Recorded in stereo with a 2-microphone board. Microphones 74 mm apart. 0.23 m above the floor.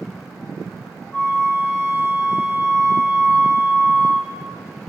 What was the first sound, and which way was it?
A flute, 20° left (ahead or behind).